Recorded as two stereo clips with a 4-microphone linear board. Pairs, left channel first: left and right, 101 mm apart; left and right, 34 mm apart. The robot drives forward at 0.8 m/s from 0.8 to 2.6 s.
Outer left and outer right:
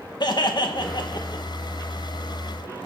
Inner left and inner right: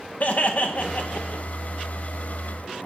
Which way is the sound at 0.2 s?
45° left (ahead or behind).